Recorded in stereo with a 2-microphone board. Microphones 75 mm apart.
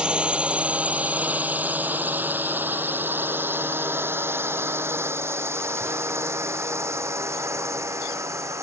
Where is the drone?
15° right (ahead or behind); by 8.6 s 40° right (ahead or behind).